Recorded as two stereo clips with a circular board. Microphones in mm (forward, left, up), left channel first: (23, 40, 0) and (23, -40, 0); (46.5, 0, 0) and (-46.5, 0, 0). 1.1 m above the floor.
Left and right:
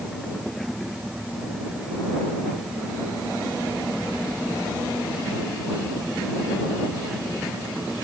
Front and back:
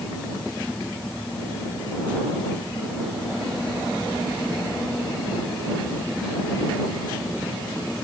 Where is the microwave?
No microwave in this recording.